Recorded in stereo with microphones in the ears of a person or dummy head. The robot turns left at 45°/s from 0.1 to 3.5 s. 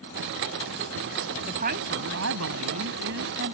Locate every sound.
1.5 s a woman speaking: 45° right; by 3.5 s 135° right